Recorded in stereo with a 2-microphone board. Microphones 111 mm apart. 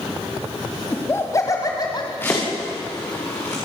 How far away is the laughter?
About 1.7 m.